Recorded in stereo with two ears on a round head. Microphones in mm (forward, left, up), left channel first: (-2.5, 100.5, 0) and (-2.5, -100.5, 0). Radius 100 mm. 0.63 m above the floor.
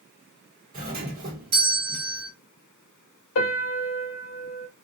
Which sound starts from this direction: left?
A piano, at 3.4 s.